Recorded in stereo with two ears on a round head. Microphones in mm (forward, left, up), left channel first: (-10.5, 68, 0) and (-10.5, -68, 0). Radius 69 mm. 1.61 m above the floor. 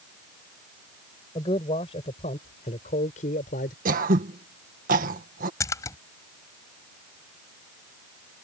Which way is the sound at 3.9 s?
60° right (ahead or behind).